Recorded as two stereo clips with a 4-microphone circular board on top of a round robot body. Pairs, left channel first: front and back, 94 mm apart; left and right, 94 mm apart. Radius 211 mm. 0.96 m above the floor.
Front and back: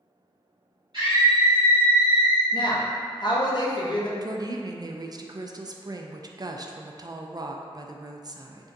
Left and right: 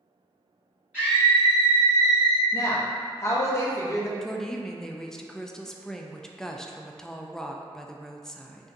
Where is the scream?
165° right, 1.8 m; by 2.4 s 135° right, 1.6 m.